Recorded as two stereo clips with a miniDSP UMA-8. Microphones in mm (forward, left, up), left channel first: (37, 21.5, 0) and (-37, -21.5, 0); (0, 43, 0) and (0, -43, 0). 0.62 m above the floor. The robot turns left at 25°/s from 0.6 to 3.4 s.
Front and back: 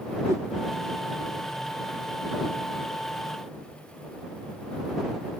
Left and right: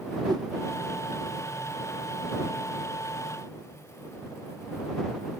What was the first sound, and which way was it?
A whoosh, 105° right.